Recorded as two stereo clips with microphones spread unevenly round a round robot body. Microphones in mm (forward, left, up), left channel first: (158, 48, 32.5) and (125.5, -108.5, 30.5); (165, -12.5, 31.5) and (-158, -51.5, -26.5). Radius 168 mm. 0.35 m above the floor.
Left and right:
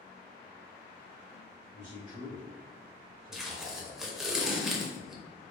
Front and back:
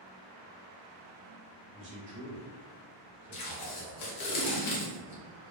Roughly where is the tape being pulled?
Ahead.